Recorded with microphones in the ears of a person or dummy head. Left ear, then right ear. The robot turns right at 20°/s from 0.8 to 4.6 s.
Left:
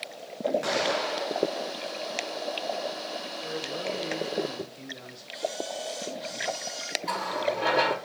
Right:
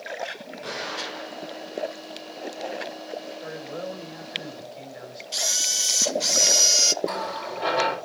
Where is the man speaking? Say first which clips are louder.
Left 1 dB; 40° right (ahead or behind), 3.5 m; by 5.2 s 20° right (ahead or behind), 3.5 m.